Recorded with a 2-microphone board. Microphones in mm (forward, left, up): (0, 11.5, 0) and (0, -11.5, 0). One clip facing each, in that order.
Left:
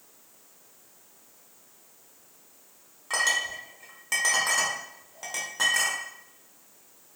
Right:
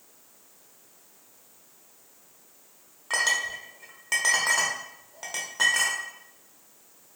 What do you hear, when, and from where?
3.1 s a clink: 10° right (ahead or behind), 0.5 m